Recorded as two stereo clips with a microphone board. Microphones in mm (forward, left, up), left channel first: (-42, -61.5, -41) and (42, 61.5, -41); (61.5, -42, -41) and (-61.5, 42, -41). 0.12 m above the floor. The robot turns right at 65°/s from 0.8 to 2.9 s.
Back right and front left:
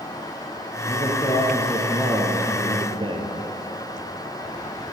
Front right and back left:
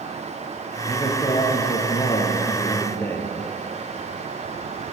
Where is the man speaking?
100° right, 1.6 m; by 3.3 s 30° left, 1.6 m.